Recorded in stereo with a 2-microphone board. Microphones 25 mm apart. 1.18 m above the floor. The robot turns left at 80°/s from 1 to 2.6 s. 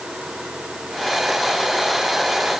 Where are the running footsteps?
No running footsteps in this recording.